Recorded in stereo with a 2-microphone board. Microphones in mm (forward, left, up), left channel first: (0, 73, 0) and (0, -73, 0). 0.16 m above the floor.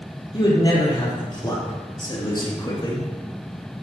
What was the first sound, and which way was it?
A man speaking, 35° left (ahead or behind).